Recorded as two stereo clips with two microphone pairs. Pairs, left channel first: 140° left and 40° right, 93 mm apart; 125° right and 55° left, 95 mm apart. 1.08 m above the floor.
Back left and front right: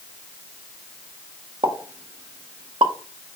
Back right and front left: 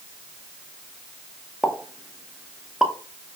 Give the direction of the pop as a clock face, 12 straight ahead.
1 o'clock.